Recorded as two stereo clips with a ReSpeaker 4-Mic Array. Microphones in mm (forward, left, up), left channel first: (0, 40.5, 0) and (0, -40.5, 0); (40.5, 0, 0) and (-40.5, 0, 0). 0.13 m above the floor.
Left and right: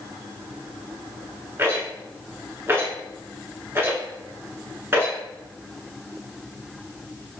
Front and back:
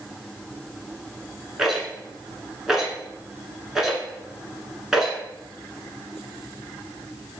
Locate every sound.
1.6 s a rattle: 100° right, 0.9 m